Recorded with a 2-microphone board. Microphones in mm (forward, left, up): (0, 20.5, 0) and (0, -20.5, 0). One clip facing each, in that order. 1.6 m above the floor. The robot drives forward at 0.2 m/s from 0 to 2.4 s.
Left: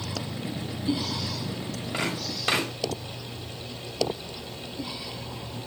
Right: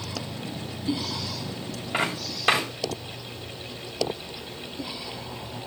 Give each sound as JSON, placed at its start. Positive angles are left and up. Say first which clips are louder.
{"t": 1.9, "sound": "footsteps", "louder": "right 3 dB", "side_deg": -25, "distance_m": 7.0}